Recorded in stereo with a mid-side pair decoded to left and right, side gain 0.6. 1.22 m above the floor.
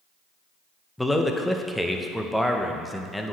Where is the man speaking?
5° left, 0.8 m.